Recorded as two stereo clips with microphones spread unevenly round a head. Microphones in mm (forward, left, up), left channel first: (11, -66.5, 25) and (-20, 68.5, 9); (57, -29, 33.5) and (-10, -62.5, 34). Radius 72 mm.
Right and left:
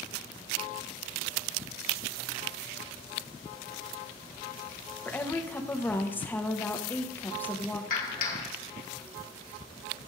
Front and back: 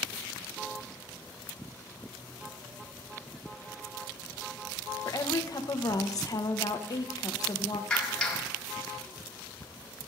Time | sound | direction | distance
5.0 | a woman speaking | straight ahead | 1.1 m
7.9 | a clap | 50° right | 2.5 m